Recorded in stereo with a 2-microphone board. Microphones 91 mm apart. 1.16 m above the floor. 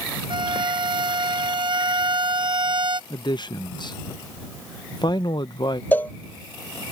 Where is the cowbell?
20° left (ahead or behind).